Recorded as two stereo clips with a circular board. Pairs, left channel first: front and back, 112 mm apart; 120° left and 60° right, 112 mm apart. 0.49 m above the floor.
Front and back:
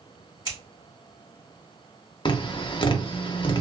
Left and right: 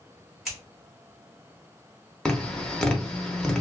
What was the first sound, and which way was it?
Scissors, 145° right.